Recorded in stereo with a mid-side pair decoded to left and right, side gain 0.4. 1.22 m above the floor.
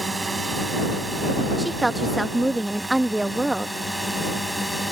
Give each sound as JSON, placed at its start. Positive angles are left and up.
{"t": 0.0, "sound": "a drone", "azimuth_deg": -30}
{"t": 1.6, "sound": "a woman speaking", "azimuth_deg": -15}